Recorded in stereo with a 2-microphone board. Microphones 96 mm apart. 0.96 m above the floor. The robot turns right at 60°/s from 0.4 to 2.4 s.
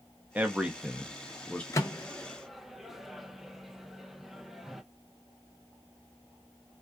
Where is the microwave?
30° left (ahead or behind), 0.5 m; by 4.8 s centre (ahead or behind), 0.5 m.